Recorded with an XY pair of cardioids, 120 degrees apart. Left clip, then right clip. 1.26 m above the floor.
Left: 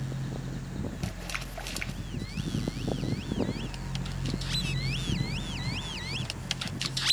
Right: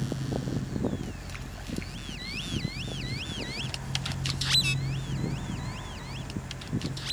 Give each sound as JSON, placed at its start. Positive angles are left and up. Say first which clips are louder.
{"t": 0.0, "sound": "a fan", "louder": "right 6 dB", "azimuth_deg": -50, "distance_m": 3.0}